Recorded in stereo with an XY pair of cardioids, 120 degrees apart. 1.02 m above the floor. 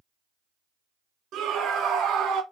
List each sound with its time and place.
1.3 s a scream: 65° right, 2.5 m; by 2.4 s 75° right, 1.5 m